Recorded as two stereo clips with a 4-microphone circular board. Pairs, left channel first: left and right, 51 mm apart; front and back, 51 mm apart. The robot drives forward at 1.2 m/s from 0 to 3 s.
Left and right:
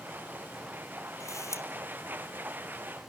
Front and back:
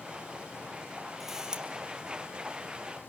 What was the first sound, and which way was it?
A camera shutter, 95° left.